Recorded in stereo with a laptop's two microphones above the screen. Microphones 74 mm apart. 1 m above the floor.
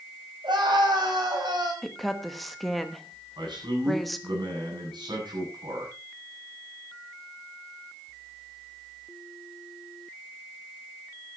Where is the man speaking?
80° right, 8.5 m.